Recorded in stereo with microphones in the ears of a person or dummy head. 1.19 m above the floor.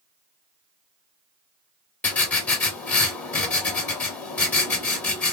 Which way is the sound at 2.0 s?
15° left (ahead or behind).